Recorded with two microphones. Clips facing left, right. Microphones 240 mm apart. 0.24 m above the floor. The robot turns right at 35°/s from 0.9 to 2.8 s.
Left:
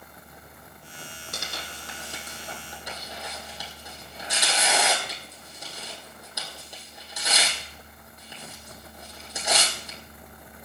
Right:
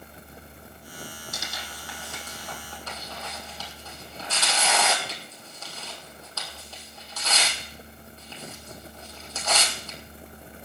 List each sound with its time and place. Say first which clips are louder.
1.3 s tearing paper: left 1 dB; 65° left (ahead or behind), 3 m; by 10.0 s 15° left (ahead or behind), 3 m